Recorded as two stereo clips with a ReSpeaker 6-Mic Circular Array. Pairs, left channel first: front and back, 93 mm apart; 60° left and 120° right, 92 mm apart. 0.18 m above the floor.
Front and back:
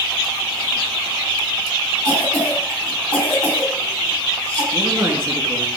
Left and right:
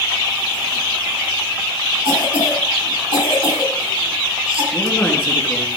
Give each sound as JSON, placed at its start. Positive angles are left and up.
{"t": 2.0, "sound": "a cough", "azimuth_deg": -130, "distance_m": 5.5}
{"t": 4.7, "sound": "a man speaking", "azimuth_deg": 125, "distance_m": 3.0}